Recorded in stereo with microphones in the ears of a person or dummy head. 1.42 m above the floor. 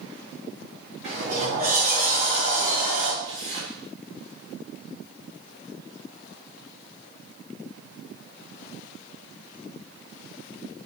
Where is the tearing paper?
35° right (ahead or behind), 4.5 m.